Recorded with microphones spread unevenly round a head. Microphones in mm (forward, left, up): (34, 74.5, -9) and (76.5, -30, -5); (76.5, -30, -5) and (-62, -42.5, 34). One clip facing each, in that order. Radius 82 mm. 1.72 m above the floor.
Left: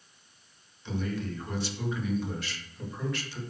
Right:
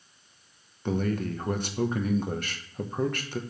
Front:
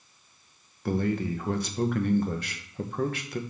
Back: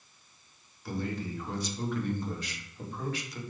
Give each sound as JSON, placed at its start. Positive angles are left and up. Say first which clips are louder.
{"t": 0.8, "sound": "a man speaking", "louder": "right 5 dB, front 8 dB", "azimuth_deg": -35, "distance_m": 1.3}